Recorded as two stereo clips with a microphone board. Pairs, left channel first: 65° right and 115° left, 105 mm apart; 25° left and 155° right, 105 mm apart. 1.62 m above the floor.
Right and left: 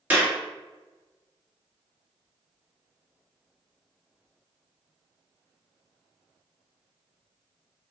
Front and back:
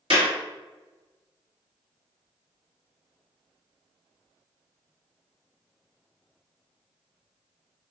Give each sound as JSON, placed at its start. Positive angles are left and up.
{"t": 0.1, "sound": "a clap", "azimuth_deg": -175, "distance_m": 2.0}